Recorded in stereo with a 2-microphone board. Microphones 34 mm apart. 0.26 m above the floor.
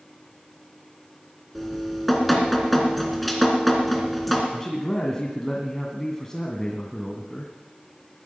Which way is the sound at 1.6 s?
Centre (ahead or behind).